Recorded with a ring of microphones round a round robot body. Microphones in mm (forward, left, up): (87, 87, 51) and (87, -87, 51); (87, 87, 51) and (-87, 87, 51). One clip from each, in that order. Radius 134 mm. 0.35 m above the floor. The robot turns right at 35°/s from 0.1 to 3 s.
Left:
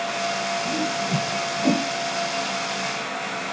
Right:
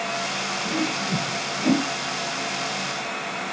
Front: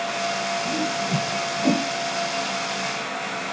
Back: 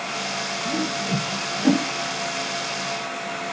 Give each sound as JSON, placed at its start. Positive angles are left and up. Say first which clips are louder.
{"t": 0.7, "sound": "a whoosh", "louder": "left 1 dB, front 1 dB", "azimuth_deg": 80, "distance_m": 1.4}